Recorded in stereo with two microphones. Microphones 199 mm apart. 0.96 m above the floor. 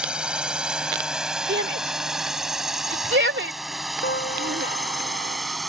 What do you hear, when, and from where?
0.0 s a drone: 5° right (ahead or behind); by 5.7 s centre (ahead or behind)
1.5 s a shout: 70° right (ahead or behind)
4.0 s a piano: 60° left (ahead or behind)